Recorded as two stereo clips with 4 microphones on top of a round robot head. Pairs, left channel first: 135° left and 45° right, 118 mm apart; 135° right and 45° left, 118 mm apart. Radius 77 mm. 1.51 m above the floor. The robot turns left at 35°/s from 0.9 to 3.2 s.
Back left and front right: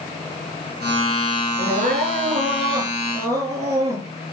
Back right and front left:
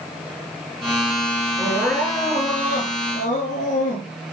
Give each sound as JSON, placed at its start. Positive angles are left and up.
{"t": 1.6, "sound": "crying", "azimuth_deg": -50, "distance_m": 6.0}